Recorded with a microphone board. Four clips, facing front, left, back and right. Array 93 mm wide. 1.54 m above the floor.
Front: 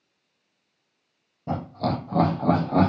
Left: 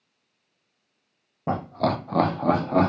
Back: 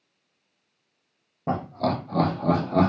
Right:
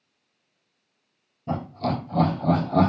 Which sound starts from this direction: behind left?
Laughter, at 1.5 s.